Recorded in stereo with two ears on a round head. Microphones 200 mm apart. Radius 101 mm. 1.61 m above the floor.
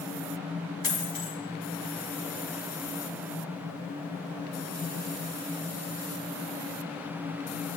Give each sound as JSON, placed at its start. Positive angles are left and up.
{"t": 0.8, "sound": "a dropped coin", "side_deg": 45, "distance_m": 6.0}